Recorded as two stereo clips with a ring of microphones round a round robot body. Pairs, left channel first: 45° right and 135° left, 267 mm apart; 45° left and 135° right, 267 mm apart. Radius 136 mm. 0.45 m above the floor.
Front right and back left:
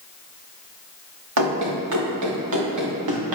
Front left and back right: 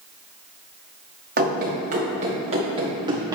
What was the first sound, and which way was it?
Running footsteps, 165° left.